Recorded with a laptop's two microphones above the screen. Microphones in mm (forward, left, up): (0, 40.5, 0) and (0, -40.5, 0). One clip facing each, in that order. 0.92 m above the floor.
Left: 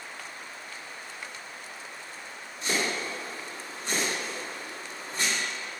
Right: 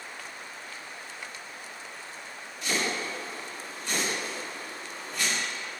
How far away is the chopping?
About 2 m.